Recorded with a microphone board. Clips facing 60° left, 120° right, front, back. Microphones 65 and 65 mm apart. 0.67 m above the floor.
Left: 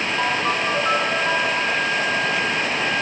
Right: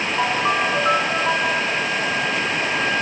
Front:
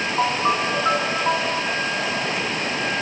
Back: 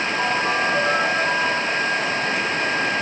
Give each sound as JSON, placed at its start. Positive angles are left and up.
{"t": 0.2, "sound": "a ringtone", "azimuth_deg": -50, "distance_m": 4.5}